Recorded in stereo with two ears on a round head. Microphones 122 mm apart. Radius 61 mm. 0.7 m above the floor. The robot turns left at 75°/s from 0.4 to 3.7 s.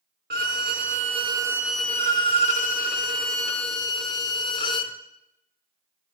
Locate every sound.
0.3 s a violin: 80° right, 0.8 m; by 5.0 s 35° left, 0.8 m